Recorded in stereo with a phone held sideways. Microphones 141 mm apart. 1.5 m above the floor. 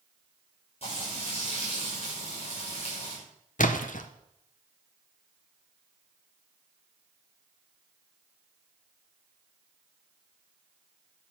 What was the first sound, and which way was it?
Frying, 45° left (ahead or behind).